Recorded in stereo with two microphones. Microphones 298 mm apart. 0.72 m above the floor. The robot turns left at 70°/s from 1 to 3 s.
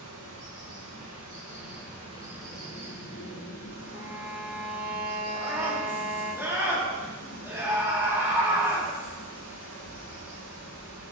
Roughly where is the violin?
Centre.